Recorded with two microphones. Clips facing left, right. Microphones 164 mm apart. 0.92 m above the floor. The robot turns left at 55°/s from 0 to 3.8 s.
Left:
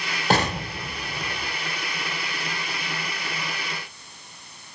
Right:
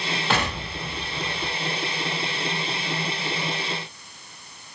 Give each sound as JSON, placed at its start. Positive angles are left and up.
{"t": 0.3, "sound": "an explosion", "azimuth_deg": 100, "distance_m": 0.6}